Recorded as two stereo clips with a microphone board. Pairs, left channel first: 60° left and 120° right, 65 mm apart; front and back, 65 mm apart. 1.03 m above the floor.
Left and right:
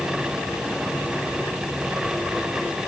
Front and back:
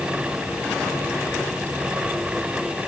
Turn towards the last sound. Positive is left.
No sound to turn to.